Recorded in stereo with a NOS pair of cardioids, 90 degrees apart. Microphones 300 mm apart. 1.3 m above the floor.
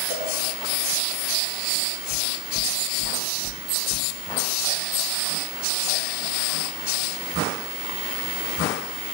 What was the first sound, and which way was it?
A cowbell, 30° left.